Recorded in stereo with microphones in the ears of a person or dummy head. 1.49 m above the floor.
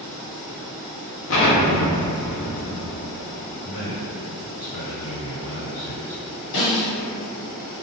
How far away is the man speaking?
About 1.5 m.